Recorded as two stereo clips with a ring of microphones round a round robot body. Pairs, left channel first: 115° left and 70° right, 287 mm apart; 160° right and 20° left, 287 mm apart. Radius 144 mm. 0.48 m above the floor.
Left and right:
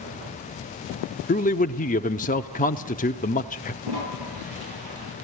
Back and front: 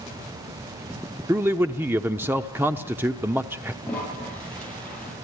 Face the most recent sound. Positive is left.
turn(degrees=-70)